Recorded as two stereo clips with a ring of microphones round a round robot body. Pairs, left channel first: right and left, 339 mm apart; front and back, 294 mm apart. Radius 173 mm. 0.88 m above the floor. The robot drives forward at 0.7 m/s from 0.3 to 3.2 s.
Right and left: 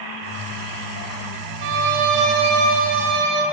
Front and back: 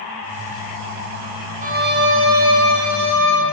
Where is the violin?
115° left, 1.0 m; by 3.4 s 150° left, 1.8 m.